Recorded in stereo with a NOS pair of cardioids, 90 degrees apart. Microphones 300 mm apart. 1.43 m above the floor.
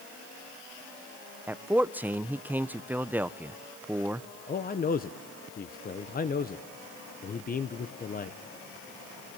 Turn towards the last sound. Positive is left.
turn(degrees=30)